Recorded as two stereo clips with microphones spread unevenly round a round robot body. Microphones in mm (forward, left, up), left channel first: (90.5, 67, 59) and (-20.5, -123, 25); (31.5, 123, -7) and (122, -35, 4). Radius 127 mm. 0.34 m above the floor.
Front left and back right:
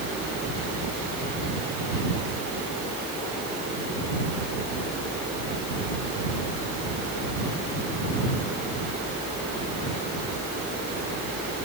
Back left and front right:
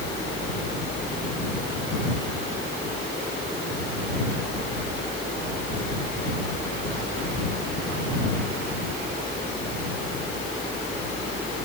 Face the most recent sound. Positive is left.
No sound to turn to.